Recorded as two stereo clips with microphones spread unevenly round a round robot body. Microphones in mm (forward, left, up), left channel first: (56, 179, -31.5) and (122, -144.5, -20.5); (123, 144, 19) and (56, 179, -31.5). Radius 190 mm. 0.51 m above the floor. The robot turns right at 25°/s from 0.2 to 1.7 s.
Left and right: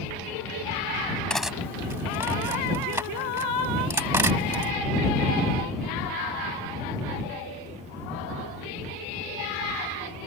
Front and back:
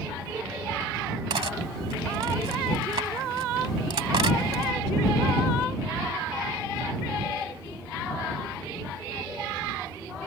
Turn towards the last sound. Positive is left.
turn(degrees=-160)